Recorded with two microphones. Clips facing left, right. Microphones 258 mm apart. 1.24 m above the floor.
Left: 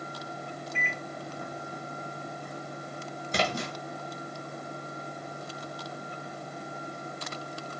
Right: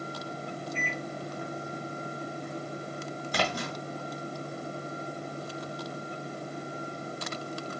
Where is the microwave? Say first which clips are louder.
Right 3 dB; 70° left (ahead or behind), 0.8 m.